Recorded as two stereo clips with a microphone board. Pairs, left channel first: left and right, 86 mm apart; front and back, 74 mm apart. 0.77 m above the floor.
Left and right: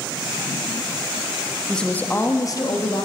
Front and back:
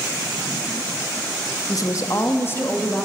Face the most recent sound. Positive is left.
turn(degrees=70)